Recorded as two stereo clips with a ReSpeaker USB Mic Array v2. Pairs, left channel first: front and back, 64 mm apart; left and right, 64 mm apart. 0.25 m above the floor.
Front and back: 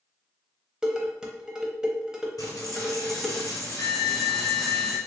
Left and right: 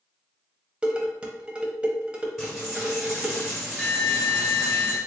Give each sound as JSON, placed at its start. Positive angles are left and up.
{"t": 0.8, "sound": "dishes clattering", "azimuth_deg": -125, "distance_m": 0.7}
{"t": 2.4, "sound": "a dropped coin", "azimuth_deg": -5, "distance_m": 1.6}